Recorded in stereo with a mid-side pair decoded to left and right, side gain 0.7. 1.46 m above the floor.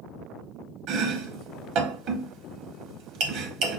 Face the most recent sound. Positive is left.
turn(degrees=-65)